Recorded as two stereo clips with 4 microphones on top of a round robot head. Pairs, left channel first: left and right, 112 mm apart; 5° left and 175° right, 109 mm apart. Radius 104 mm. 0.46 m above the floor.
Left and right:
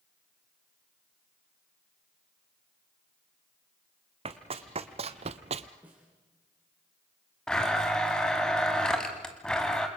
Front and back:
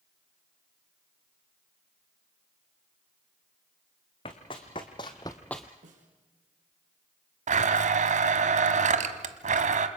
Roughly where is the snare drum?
Behind.